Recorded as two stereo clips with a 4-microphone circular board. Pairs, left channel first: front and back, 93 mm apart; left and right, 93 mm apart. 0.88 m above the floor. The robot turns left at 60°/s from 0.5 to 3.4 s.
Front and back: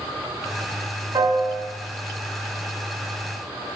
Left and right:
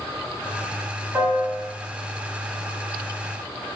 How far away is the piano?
About 1.7 m.